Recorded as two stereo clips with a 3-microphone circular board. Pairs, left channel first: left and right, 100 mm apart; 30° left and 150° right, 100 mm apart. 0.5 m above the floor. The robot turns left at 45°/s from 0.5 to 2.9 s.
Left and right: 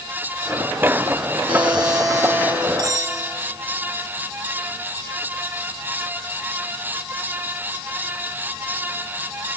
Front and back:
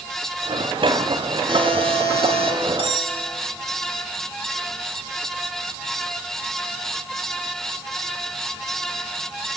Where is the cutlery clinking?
135° right, 1.9 m; by 3.2 s 140° right, 1.9 m.